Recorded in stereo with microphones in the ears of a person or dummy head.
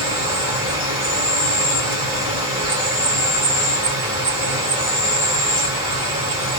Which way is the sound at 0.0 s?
25° right (ahead or behind).